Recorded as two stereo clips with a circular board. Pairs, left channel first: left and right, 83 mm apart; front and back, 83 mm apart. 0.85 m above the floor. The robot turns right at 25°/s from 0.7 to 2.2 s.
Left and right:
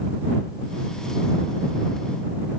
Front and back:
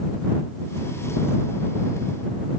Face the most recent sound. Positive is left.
No sound to turn to.